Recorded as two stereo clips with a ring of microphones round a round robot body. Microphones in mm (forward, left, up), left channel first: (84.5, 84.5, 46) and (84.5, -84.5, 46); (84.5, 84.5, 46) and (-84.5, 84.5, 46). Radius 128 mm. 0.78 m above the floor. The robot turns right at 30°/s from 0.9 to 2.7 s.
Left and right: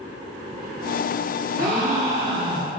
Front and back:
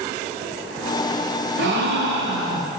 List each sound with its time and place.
1.6 s a gasp: 175° left, 1.5 m; by 2.7 s 150° right, 1.5 m